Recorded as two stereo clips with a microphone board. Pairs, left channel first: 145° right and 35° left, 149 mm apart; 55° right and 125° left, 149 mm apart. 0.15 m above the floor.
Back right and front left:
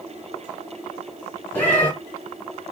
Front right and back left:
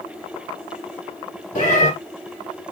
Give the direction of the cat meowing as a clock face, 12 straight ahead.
2 o'clock.